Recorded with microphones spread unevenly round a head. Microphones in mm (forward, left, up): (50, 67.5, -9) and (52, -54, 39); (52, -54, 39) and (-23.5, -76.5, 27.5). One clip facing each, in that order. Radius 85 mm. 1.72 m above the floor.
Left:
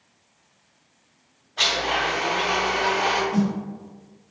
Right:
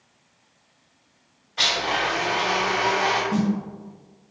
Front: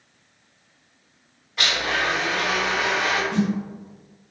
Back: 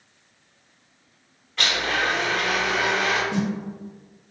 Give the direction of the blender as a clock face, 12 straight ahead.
1 o'clock.